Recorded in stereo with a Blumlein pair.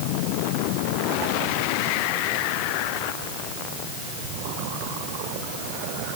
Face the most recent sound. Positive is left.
No sound to turn to.